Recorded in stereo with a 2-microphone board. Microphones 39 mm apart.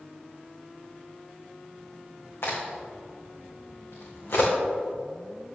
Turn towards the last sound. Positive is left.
turn(degrees=75)  # may be behind; listen again after turning